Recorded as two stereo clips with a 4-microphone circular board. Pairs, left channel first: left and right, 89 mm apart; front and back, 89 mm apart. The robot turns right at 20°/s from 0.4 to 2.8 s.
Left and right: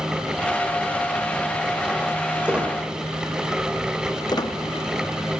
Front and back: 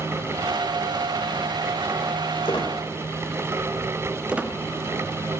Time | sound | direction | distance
2.5 | a squeak | 15° right | 1.6 m
4.3 | a squeak | 110° left | 0.5 m